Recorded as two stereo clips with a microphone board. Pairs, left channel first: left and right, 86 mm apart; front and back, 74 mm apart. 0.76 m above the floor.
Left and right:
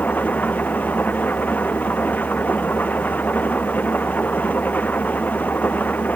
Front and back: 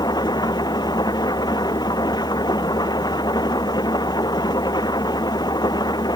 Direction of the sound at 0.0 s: 20° left.